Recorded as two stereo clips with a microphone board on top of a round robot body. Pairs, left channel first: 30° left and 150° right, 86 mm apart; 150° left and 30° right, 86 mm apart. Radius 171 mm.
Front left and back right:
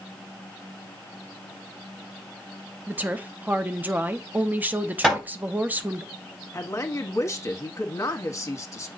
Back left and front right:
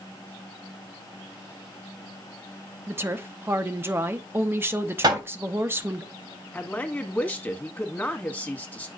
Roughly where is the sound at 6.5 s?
Left.